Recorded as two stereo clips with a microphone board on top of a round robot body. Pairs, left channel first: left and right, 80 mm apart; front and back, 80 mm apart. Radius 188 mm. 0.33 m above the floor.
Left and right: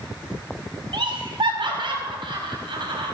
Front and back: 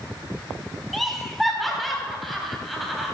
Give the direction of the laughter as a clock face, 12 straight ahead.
3 o'clock.